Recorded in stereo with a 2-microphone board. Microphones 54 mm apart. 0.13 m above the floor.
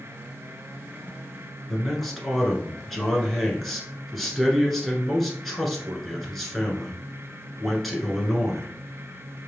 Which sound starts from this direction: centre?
A man speaking, at 1.7 s.